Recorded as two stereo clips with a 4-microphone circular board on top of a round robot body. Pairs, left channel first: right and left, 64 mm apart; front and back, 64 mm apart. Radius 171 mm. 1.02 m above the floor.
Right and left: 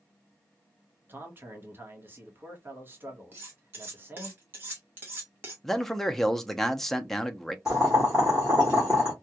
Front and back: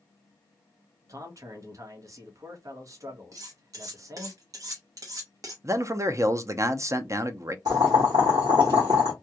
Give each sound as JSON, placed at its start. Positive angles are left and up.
{"t": 1.1, "sound": "a man speaking", "azimuth_deg": 145, "distance_m": 1.0}
{"t": 3.3, "sound": "cutlery clinking", "azimuth_deg": 150, "distance_m": 0.7}
{"t": 5.6, "sound": "a man speaking", "azimuth_deg": -175, "distance_m": 0.7}
{"t": 7.7, "sound": "boiling", "azimuth_deg": 170, "distance_m": 0.7}